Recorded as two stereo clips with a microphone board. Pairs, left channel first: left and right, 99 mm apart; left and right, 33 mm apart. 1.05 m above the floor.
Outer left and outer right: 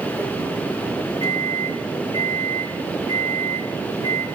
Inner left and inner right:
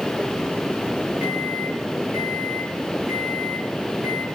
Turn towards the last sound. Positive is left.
turn(degrees=-60)  # may be behind; listen again after turning